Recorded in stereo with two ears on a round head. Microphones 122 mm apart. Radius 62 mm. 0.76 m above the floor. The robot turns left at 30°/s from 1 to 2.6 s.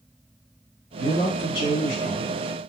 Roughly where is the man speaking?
Behind left.